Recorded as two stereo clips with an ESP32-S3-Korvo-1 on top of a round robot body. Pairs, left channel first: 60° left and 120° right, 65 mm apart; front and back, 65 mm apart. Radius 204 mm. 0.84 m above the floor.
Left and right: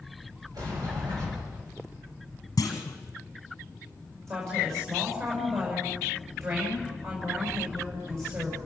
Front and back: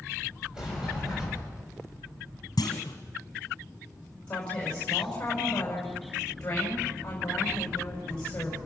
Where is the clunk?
20° left, 0.9 m.